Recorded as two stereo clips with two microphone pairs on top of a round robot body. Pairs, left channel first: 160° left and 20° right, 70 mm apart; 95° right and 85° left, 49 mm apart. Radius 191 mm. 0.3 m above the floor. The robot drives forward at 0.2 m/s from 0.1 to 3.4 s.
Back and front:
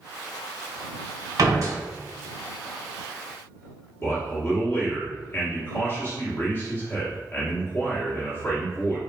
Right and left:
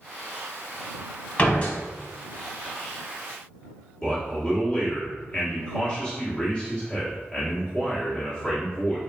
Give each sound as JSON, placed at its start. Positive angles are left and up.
{"t": 1.4, "sound": "a door slam", "azimuth_deg": -40, "distance_m": 1.8}
{"t": 4.0, "sound": "a man speaking", "azimuth_deg": -155, "distance_m": 1.7}